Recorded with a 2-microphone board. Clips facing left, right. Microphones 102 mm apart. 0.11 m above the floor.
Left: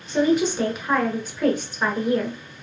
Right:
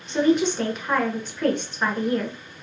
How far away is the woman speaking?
About 1.1 m.